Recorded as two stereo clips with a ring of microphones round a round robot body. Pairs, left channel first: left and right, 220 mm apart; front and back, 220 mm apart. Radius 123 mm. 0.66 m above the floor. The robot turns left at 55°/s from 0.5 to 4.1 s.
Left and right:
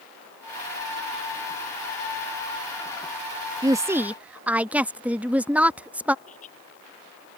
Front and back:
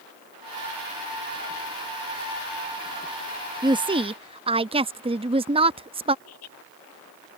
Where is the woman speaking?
140° right; by 6.2 s 165° right.